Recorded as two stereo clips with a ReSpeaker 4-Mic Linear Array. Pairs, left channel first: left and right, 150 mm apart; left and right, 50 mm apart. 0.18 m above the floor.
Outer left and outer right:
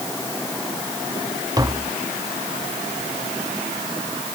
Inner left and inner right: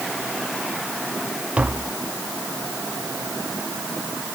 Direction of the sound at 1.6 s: 25° right (ahead or behind).